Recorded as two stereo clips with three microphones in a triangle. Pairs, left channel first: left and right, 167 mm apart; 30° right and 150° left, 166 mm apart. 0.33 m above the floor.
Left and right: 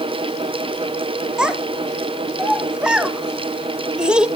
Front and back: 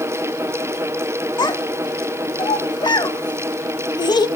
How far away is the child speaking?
About 0.6 m.